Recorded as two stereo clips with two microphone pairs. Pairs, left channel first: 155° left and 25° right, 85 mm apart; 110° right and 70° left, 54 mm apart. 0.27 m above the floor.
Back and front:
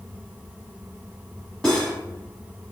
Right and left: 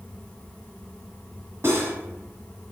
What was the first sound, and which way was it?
Cutlery clinking, 75° left.